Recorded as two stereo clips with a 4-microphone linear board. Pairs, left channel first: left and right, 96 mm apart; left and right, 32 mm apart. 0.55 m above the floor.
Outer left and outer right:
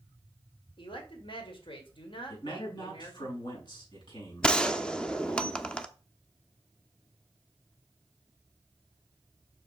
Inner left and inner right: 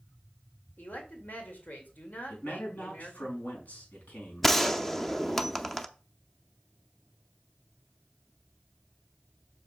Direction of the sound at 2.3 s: 55° left (ahead or behind).